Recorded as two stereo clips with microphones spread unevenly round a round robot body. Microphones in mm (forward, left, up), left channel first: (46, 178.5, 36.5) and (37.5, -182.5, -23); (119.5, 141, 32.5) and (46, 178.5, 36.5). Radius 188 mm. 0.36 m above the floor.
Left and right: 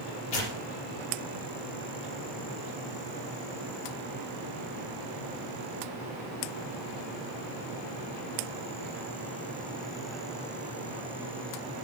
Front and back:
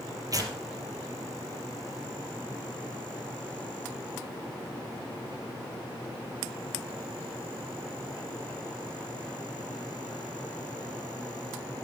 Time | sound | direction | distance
0.3 | tearing paper | 105° left | 3 m